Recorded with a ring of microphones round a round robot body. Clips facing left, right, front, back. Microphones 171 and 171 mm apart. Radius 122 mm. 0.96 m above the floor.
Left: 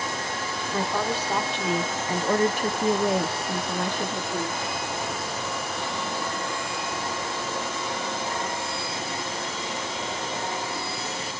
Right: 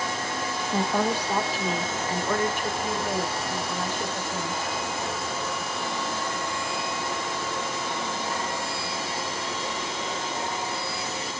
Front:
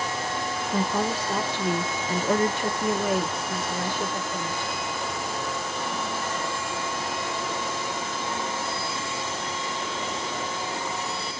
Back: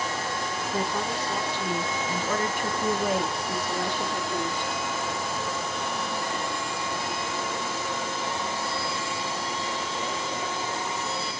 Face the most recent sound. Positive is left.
turn(degrees=115)